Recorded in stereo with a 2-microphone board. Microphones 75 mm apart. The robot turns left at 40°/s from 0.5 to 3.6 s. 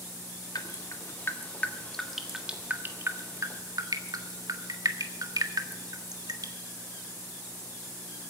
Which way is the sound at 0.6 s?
60° left (ahead or behind).